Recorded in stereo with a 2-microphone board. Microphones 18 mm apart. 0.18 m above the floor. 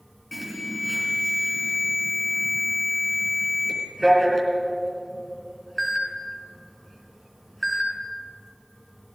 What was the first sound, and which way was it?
An alarm, 10° left (ahead or behind).